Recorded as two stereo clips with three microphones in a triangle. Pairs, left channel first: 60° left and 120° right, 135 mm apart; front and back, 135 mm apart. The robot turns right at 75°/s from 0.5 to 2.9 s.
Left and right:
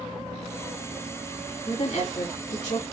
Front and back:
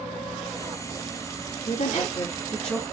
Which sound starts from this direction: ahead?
A woman speaking, at 1.6 s.